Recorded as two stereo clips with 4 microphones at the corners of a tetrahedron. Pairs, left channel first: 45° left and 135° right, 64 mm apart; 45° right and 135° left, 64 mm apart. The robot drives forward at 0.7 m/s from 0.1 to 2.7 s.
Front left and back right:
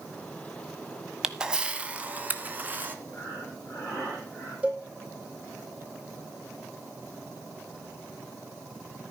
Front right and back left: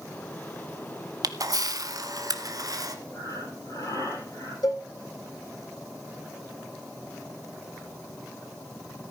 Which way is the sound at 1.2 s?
140° left.